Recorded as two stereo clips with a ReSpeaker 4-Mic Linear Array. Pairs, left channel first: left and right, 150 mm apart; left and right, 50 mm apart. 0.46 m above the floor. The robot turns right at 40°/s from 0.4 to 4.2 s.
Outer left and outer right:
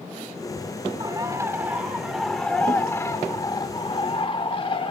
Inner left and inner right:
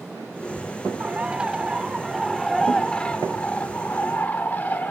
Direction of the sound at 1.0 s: 50° right.